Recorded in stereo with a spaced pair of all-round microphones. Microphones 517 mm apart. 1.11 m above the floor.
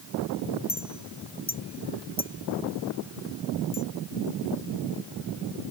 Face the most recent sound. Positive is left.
turn(degrees=45)  # may be behind; listen again after turning